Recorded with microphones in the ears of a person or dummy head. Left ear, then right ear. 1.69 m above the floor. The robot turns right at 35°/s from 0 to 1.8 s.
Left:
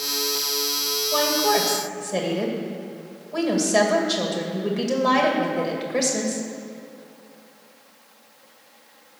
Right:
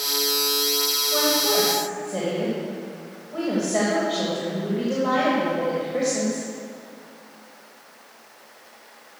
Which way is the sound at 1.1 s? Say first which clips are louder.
Left 2 dB; 55° left (ahead or behind).